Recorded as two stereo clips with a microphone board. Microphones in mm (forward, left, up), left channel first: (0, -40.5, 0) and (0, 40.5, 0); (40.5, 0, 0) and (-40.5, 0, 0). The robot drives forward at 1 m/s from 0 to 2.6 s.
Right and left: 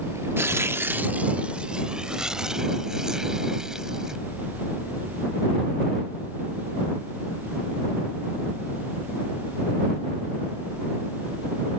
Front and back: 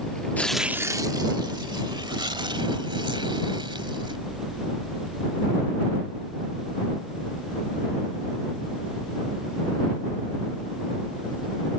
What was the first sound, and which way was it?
Tearing paper, 55° left.